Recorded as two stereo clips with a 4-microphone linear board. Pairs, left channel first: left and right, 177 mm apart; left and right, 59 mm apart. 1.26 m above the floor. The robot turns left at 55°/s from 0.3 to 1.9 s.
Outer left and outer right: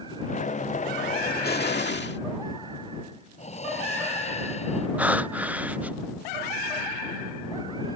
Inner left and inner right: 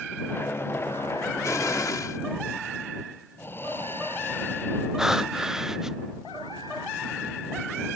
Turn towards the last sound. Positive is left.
turn(degrees=-10)  # may be behind; listen again after turning